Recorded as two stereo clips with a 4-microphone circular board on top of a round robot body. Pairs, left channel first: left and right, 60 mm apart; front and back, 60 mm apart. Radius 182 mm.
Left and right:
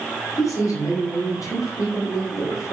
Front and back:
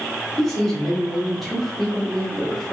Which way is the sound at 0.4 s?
85° left.